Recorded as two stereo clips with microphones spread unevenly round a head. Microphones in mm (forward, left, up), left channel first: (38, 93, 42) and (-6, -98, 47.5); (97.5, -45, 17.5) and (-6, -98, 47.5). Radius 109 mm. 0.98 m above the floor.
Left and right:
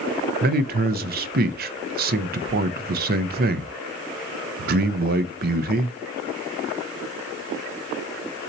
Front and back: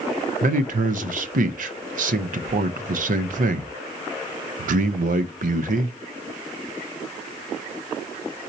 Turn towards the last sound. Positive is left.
turn(degrees=-145)